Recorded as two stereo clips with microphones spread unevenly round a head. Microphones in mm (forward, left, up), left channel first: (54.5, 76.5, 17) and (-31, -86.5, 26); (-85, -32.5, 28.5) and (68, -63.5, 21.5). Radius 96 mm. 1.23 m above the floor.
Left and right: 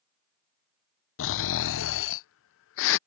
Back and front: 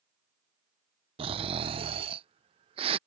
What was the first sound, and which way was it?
Snoring, 50° left.